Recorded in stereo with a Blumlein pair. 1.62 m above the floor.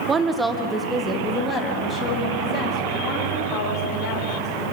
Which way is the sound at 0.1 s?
20° right.